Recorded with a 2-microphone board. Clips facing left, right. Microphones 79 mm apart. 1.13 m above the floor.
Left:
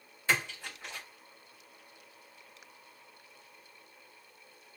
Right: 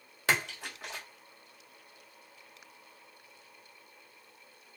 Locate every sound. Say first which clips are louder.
0.3 s a splash: right 1 dB; 75° right (ahead or behind), 1.5 m